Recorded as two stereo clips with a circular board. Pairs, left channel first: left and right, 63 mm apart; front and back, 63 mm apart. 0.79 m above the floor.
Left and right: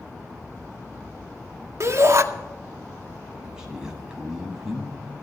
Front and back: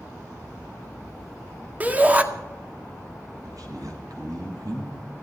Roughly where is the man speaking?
Behind.